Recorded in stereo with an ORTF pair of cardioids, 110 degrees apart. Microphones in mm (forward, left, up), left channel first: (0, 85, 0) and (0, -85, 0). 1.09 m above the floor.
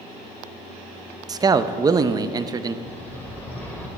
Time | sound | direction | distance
1.3 | a man speaking | 20° right | 0.6 m
2.9 | a bird | 10° left | 2 m